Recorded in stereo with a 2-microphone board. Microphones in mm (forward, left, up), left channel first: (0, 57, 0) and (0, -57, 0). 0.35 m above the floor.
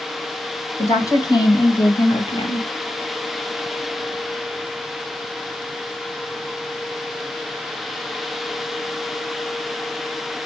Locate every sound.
0.8 s a woman speaking: 30° left (ahead or behind), 2.5 m; by 2.7 s 60° left (ahead or behind), 1.8 m